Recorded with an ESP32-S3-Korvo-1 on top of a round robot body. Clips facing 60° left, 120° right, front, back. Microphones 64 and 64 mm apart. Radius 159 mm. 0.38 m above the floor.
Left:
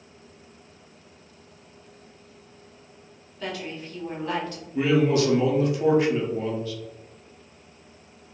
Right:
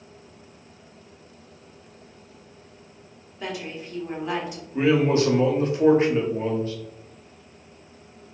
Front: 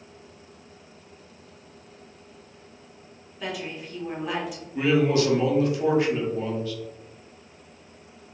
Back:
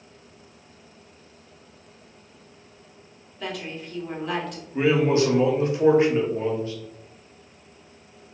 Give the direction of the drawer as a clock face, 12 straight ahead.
No drawer in this recording.